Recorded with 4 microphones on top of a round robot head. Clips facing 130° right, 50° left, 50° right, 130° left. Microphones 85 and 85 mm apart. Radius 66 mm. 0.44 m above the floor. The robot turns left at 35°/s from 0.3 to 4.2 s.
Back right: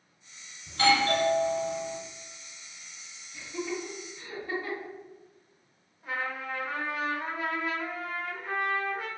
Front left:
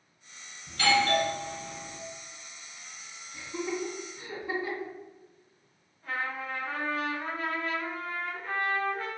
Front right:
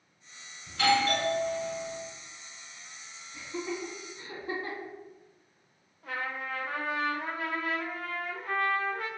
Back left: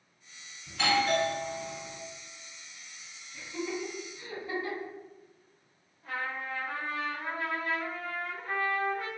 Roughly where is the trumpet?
Ahead right.